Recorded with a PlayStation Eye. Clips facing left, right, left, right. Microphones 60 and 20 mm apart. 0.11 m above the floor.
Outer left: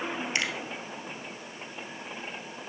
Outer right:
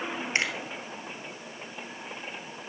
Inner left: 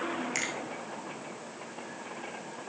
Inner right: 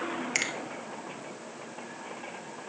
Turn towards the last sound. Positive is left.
turn(degrees=-30)  # may be behind; listen again after turning